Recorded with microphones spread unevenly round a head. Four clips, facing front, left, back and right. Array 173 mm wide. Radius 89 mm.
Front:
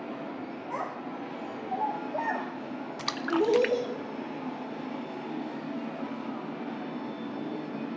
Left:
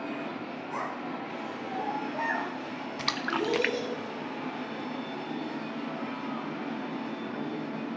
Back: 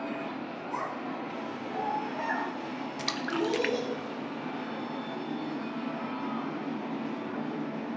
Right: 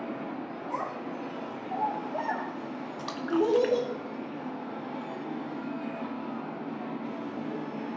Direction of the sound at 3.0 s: 70° left.